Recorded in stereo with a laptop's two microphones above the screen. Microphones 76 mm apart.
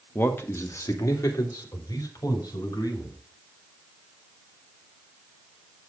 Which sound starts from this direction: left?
A man speaking, at 0.1 s.